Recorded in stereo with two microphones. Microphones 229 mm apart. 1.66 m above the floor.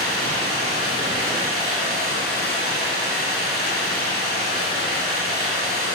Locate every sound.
0.0 s running water: 45° left (ahead or behind), 7 m